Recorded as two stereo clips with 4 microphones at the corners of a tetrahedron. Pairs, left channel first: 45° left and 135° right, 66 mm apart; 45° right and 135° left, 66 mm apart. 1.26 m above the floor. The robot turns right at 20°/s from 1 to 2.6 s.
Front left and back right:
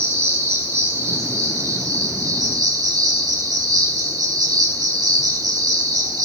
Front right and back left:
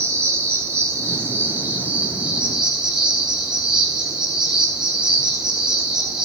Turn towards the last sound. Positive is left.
turn(degrees=-145)